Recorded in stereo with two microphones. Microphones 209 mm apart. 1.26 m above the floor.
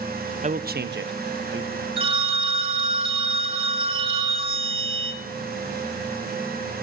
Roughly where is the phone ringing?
Right.